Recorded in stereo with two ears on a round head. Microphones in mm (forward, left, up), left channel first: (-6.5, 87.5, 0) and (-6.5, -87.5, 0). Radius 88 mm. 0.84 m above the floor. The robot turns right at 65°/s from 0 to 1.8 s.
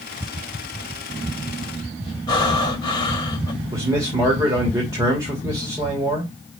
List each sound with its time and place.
2.3 s breathing: 25° left (ahead or behind), 1.7 m
3.7 s a man speaking: 20° right (ahead or behind), 2.5 m